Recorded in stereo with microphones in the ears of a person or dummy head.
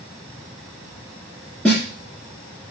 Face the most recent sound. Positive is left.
turn(degrees=0)  # may be behind; listen again after turning